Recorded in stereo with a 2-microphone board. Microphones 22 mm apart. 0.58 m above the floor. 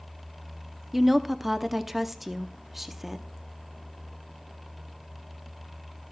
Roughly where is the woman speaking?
Centre.